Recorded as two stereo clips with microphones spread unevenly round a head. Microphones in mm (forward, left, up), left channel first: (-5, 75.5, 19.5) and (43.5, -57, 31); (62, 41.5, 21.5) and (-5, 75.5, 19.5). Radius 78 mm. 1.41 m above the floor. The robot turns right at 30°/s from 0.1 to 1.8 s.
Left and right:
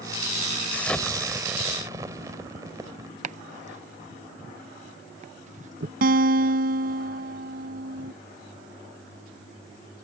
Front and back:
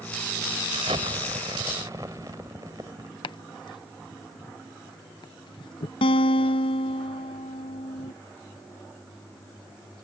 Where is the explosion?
170° right; by 3.1 s 135° right.